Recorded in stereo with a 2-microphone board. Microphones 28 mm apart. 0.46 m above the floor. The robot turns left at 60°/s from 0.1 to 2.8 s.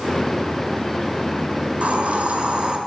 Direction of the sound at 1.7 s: 65° right.